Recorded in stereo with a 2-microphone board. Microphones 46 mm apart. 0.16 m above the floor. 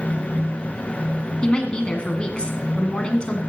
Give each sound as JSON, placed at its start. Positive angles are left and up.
{"t": 1.4, "sound": "a woman speaking", "side_deg": 25, "distance_m": 1.8}